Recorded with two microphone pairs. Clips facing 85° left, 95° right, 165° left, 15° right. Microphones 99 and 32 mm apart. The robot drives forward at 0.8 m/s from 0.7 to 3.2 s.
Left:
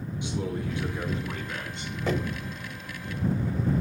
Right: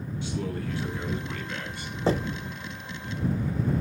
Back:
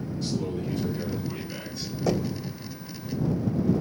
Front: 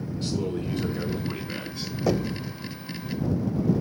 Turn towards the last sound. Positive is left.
turn(degrees=-160)